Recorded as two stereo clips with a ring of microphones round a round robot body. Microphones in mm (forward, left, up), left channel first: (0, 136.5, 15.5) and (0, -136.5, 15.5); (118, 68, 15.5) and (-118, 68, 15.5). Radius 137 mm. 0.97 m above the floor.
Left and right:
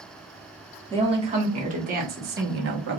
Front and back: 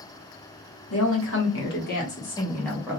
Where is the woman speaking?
20° right, 1.5 m; by 3.0 s 105° right, 0.9 m.